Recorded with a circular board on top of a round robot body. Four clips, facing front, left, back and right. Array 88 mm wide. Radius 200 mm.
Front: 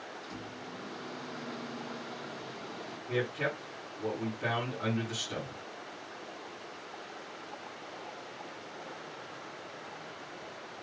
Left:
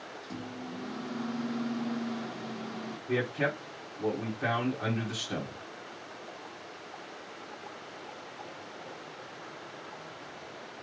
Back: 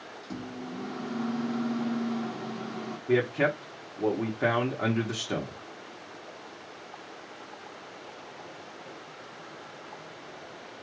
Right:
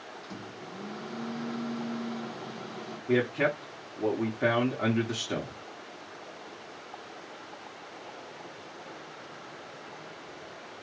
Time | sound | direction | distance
0.2 | a microwave | 175° left | 1.1 m
3.1 | a man speaking | 145° right | 1.2 m